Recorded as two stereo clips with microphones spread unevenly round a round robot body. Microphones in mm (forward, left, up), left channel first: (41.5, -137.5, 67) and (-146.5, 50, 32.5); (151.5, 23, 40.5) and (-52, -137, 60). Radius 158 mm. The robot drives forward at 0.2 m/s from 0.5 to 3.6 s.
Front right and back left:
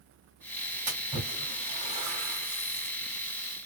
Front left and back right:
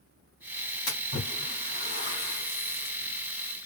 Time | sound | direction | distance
0.9 | a splash | 75° left | 2.5 m